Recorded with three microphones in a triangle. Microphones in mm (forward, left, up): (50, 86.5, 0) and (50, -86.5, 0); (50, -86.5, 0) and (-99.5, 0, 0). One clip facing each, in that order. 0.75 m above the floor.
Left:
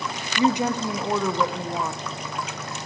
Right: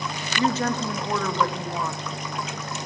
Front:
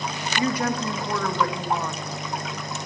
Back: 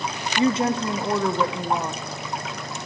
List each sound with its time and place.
0.4 s a woman speaking: 140° left, 0.8 m